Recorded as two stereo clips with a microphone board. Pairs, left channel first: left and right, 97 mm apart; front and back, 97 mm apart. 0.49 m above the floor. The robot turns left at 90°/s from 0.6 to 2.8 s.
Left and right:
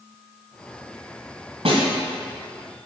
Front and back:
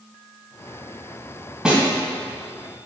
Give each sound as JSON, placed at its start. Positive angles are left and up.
{"t": 1.6, "sound": "a snare drum", "azimuth_deg": -95, "distance_m": 2.0}